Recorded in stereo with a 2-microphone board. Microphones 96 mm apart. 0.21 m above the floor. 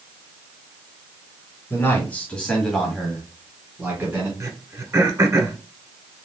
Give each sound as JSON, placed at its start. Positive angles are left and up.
{"t": 1.7, "sound": "a man speaking", "side_deg": 25, "distance_m": 1.7}
{"t": 4.4, "sound": "throat clearing", "side_deg": -35, "distance_m": 0.7}